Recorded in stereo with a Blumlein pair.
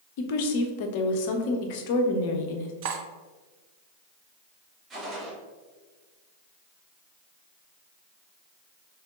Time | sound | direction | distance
0.2 | a woman speaking | 50° left | 0.7 m
2.8 | cutlery clinking | 45° right | 0.5 m
4.9 | a gunshot | 25° right | 1.2 m